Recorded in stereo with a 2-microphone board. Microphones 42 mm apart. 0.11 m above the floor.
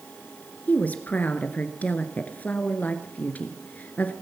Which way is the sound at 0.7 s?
40° left (ahead or behind).